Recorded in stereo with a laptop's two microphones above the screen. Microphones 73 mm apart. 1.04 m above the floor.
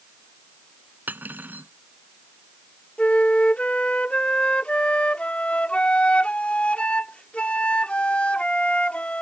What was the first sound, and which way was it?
Cutlery clinking, 25° right (ahead or behind).